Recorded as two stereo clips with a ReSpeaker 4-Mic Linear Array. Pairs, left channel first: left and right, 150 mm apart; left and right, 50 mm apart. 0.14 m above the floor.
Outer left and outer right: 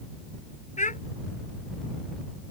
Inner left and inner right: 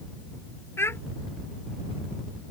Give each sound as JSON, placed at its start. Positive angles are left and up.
{"t": 0.8, "sound": "a child speaking", "side_deg": 60}